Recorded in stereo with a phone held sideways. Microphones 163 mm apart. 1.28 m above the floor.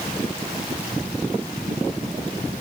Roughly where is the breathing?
I don't hear breathing.